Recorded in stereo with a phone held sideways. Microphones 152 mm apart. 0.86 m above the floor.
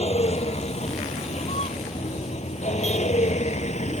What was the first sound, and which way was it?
A vehicle, 45° left (ahead or behind).